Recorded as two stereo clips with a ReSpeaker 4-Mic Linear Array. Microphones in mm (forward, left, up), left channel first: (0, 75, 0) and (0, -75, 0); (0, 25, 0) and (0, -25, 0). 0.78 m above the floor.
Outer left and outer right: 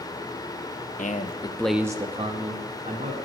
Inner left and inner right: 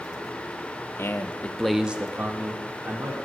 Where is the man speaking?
60° left (ahead or behind), 0.9 m; by 3.1 s 60° right (ahead or behind), 1.9 m.